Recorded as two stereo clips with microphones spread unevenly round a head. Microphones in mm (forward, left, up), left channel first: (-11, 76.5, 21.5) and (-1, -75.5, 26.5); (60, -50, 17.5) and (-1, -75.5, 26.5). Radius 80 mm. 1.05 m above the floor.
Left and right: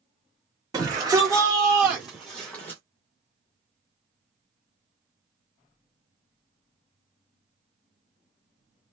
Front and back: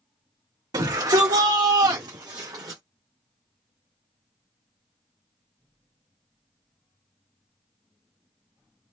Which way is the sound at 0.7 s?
150° right.